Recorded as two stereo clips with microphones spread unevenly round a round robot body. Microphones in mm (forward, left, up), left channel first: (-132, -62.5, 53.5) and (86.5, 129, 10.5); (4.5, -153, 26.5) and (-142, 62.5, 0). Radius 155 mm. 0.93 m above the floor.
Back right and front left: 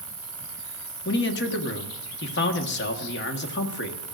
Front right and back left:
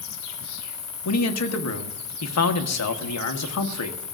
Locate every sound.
0.0 s an insect: 35° right, 2 m
1.1 s a man speaking: 80° right, 1.4 m